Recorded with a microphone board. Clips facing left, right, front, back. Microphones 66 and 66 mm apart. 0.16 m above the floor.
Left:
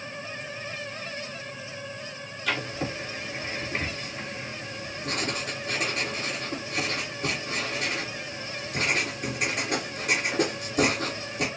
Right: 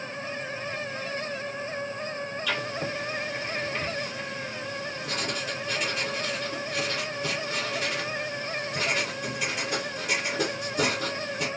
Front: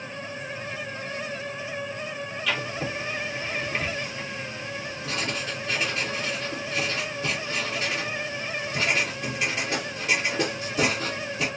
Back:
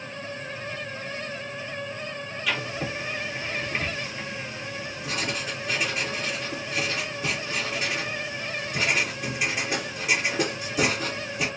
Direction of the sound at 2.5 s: 105° left.